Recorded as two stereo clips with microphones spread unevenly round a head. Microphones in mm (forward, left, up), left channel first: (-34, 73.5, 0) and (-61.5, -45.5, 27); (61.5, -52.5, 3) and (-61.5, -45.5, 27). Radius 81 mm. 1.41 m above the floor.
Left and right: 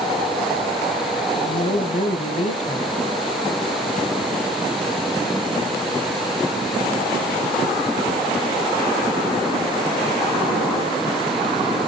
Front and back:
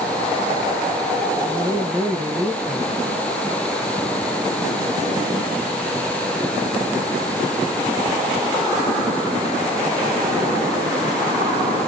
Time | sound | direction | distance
1.4 | a woman speaking | 105° left | 1.7 m